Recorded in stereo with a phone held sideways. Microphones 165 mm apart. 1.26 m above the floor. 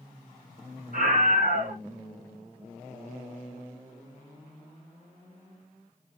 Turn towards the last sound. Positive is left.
turn(degrees=-75)  # may be behind; listen again after turning